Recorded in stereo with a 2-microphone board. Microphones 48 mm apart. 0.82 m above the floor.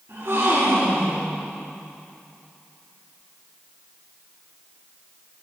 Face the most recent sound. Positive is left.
turn(degrees=-65)  # may be behind; listen again after turning